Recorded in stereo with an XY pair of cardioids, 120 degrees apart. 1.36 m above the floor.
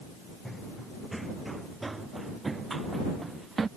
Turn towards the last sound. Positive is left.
turn(degrees=-30)